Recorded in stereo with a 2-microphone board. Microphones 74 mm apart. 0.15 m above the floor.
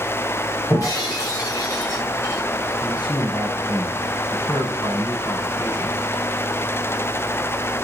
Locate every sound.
0.7 s breaking glass: 50° left (ahead or behind), 7.5 m
2.8 s a man speaking: 75° left (ahead or behind), 6.5 m